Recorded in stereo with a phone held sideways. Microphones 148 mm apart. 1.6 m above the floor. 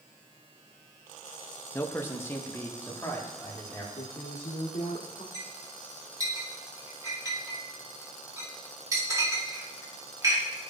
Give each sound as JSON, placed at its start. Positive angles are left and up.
{"t": 1.7, "sound": "a man speaking", "side_deg": 15, "distance_m": 0.8}
{"t": 4.0, "sound": "a woman speaking", "side_deg": 90, "distance_m": 1.3}
{"t": 5.3, "sound": "a clink", "side_deg": -25, "distance_m": 2.0}